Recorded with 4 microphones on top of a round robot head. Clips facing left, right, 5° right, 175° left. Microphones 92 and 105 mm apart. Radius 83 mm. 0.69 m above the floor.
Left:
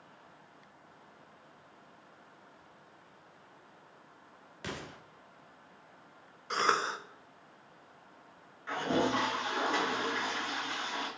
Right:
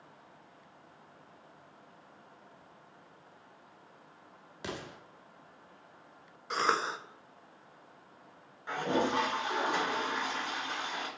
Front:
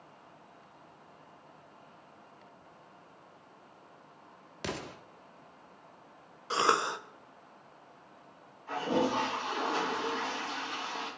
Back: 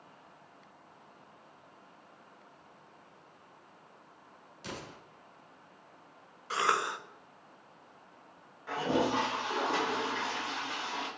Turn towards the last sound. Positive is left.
turn(degrees=-160)